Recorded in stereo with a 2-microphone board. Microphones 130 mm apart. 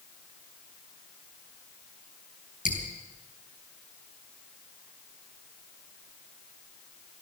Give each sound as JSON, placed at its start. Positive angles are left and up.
{"t": 2.6, "sound": "dripping", "side_deg": 70, "distance_m": 4.0}